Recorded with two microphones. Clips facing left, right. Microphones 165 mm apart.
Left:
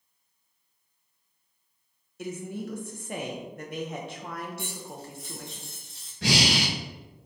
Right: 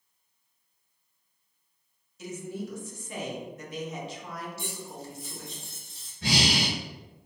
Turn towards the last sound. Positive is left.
turn(degrees=75)  # may be behind; listen again after turning